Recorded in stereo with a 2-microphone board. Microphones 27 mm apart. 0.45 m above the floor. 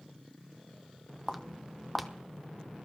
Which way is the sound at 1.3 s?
5° left (ahead or behind).